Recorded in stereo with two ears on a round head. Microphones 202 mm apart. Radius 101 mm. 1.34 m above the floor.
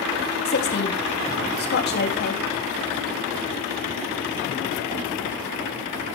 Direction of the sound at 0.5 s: 45° left (ahead or behind).